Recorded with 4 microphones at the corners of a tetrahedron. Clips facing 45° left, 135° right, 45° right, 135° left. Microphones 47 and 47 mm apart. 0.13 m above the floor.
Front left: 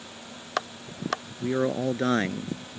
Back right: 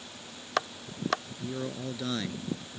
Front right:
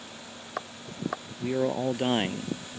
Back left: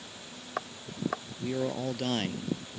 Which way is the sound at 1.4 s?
20° left.